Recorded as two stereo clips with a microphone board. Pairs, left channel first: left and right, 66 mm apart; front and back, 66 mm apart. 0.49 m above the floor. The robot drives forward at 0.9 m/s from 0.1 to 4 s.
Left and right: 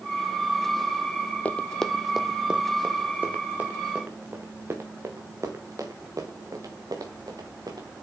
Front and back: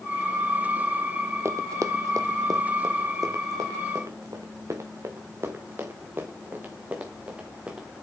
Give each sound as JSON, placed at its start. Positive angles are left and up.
{"t": 1.4, "sound": "running footsteps", "azimuth_deg": 150, "distance_m": 0.7}